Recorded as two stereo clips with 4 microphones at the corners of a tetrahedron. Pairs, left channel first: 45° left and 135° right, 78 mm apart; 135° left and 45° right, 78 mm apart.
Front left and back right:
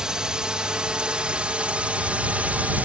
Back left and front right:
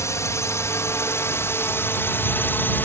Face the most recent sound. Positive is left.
turn(degrees=170)